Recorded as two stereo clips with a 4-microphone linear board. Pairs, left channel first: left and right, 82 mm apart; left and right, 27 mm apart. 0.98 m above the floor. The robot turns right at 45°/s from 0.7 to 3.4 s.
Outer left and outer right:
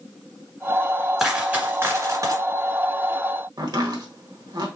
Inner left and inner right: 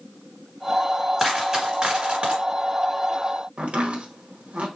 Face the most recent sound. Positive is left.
turn(degrees=-65)  # may be behind; listen again after turning